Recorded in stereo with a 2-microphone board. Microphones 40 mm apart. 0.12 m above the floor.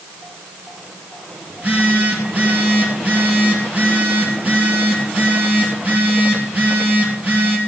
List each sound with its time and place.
1.5 s a phone buzzing: 40° right (ahead or behind), 3 m